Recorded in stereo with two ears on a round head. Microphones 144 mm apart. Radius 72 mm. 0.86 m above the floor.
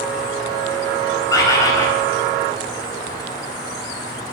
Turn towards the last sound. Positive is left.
turn(degrees=20)  # may be behind; listen again after turning